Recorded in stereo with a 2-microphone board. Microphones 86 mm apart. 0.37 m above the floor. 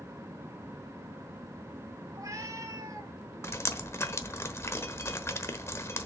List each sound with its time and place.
2.1 s a cat meowing: 40° right (ahead or behind), 1.4 m
3.4 s dripping: 30° left (ahead or behind), 1.0 m